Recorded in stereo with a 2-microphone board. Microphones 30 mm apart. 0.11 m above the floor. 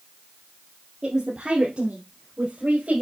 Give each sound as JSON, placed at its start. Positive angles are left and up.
{"t": 1.0, "sound": "a woman speaking", "side_deg": -20, "distance_m": 2.5}